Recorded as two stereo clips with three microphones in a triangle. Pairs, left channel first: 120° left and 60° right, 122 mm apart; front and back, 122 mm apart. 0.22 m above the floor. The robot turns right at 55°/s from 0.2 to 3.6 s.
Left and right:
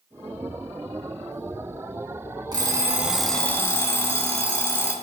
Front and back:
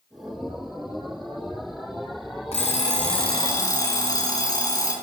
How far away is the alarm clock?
About 1.2 m.